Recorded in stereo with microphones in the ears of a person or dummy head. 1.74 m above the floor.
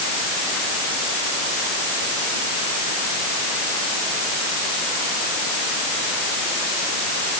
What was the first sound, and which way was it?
Only background noise.